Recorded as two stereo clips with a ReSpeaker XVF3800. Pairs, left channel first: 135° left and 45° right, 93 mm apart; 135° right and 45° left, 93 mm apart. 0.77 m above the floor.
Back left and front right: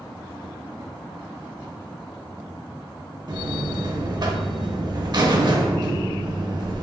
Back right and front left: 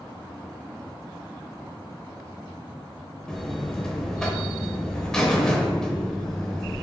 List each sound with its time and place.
3.3 s a buzzer: 55° right, 0.6 m